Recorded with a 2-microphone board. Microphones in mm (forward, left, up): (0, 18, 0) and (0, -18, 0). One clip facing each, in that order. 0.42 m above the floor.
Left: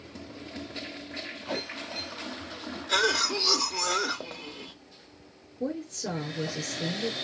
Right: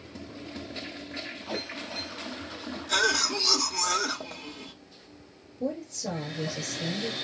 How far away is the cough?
About 1.1 m.